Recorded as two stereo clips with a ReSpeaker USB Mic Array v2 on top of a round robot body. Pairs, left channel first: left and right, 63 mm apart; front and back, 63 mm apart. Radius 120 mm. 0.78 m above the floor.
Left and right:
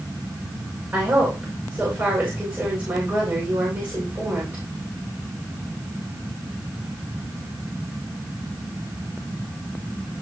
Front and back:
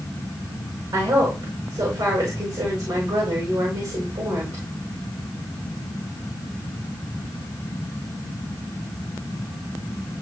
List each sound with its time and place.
0.9 s a woman speaking: 150° right, 4 m